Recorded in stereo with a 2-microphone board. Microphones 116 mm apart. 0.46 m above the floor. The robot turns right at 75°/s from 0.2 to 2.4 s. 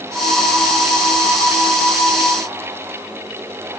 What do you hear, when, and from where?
Only background noise.